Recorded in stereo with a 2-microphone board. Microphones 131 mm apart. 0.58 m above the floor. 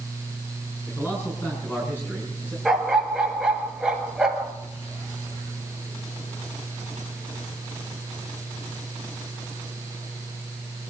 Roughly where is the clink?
No clink in this recording.